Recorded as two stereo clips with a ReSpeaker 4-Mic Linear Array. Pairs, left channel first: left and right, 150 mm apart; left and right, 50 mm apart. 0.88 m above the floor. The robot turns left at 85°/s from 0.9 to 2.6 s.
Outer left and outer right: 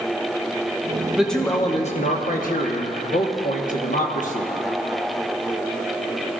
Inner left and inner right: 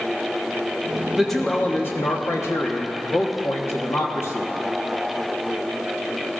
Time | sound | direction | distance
1.1 | a man speaking | 170° right | 1.2 m